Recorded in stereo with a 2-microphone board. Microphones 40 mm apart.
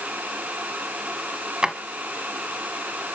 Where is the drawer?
25° right (ahead or behind), 1.4 m.